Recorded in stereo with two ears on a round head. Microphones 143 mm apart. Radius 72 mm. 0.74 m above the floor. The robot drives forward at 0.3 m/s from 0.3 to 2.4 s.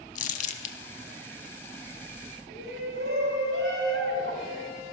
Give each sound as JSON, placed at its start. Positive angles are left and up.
{"t": 0.1, "sound": "crumpling", "side_deg": 50, "distance_m": 1.1}
{"t": 2.5, "sound": "a shout", "side_deg": -85, "distance_m": 4.0}